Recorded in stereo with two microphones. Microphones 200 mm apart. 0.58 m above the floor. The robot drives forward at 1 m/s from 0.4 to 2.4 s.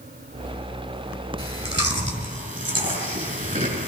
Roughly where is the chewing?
Right.